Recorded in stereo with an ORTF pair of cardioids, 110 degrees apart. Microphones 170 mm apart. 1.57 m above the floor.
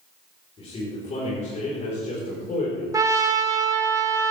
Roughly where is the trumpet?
Ahead.